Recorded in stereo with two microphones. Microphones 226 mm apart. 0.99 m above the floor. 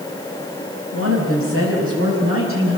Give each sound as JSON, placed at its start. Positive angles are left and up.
{"t": 0.9, "sound": "a woman speaking", "side_deg": -70, "distance_m": 5.5}